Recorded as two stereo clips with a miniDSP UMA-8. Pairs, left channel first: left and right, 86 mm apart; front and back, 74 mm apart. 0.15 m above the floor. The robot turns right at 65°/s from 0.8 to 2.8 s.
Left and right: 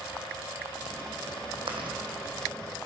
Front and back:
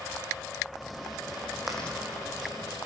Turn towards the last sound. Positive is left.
turn(degrees=-20)